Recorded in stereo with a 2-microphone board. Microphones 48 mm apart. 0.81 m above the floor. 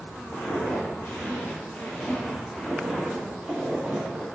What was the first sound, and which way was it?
Footsteps, 50° left (ahead or behind).